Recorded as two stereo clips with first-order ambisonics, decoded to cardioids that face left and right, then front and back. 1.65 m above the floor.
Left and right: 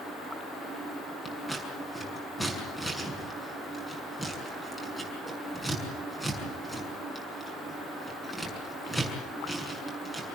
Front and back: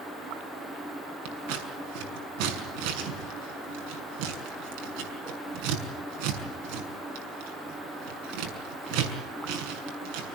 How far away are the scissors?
About 6.5 m.